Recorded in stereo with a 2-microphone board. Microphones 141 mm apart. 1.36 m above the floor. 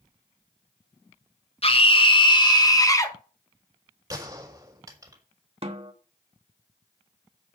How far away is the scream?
About 2 m.